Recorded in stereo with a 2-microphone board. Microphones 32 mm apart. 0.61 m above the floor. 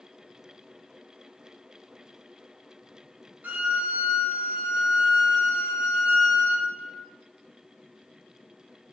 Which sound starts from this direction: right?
A violin, at 3.4 s.